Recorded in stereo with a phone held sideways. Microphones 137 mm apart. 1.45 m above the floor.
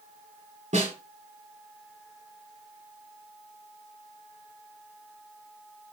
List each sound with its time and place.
0.7 s a snare drum: 70° right (ahead or behind), 4.5 m